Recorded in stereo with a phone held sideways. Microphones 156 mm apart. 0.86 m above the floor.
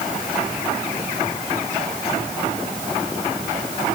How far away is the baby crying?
No baby crying in this recording.